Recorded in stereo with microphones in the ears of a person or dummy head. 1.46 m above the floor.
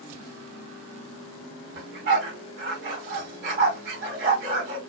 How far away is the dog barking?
About 2.5 m.